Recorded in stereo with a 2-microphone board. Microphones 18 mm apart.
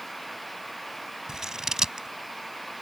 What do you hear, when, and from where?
1.3 s scissors: 40° right (ahead or behind)